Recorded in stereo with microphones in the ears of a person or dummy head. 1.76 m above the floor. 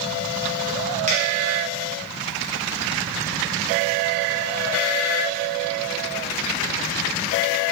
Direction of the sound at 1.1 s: 30° right (ahead or behind).